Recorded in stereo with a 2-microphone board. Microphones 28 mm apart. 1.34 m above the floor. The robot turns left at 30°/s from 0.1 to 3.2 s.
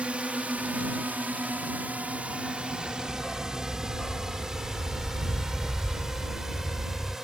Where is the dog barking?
20° left (ahead or behind).